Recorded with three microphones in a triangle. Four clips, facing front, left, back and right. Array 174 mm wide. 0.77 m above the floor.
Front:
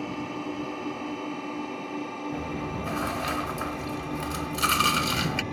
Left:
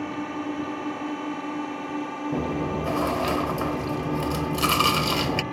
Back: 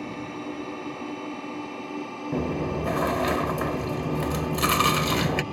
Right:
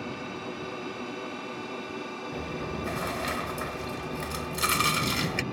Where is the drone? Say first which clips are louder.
Left 6 dB, front 1 dB; 85° left; by 5.5 s 100° left.